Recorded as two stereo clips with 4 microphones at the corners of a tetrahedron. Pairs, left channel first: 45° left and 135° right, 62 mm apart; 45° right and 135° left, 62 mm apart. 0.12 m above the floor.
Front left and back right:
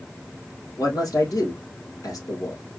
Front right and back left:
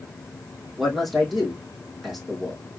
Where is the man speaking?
45° left, 3 m.